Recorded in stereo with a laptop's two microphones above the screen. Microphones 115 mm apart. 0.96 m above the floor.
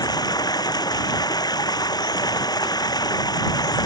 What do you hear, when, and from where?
0.0 s running water: 35° left (ahead or behind)